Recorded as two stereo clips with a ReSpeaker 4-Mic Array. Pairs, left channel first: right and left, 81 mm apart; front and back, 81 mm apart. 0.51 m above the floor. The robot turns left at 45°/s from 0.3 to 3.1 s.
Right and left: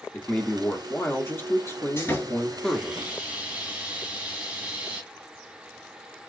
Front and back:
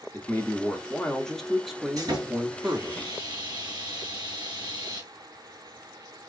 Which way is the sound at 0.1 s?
30° right.